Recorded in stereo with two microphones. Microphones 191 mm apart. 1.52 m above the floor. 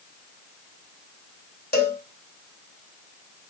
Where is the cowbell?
55° left (ahead or behind), 2 m.